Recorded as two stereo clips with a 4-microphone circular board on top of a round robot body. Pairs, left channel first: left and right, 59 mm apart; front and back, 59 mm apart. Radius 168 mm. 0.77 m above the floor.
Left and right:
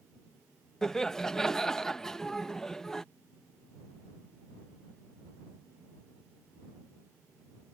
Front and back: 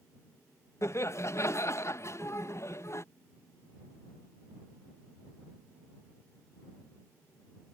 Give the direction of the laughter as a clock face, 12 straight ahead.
12 o'clock.